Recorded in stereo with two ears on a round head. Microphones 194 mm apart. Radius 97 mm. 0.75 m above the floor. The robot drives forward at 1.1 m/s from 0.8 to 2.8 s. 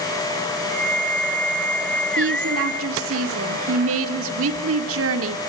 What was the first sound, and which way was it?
A woman speaking, 65° right (ahead or behind).